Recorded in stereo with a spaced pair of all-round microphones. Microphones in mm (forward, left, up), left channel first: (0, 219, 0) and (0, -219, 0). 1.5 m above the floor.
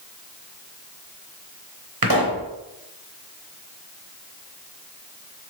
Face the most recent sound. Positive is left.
turn(degrees=-55)  # may be behind; listen again after turning